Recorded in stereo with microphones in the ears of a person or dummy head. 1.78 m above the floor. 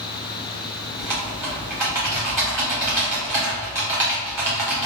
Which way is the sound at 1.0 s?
10° right (ahead or behind).